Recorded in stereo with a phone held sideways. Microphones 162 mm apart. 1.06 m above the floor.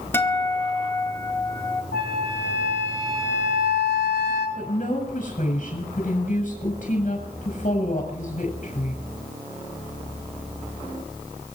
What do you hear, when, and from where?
0.1 s a guitar: 15° left (ahead or behind), 2.0 m
1.9 s a flute: 80° left, 7 m
4.6 s a woman speaking: 55° left (ahead or behind), 6.5 m